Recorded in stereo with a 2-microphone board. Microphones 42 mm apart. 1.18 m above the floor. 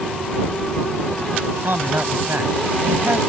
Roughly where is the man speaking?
Right.